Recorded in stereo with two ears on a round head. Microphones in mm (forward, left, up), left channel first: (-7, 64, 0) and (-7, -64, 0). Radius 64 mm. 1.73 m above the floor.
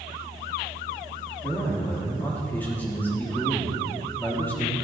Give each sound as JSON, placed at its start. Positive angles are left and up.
{"t": 1.4, "sound": "a man speaking", "side_deg": 15, "distance_m": 3.5}